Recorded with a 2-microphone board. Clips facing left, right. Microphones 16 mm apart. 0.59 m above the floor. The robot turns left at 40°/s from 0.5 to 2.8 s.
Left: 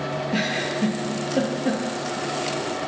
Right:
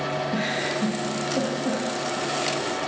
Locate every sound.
0.3 s a giggle: 50° left (ahead or behind), 9.5 m; by 1.8 s 80° left, 9.5 m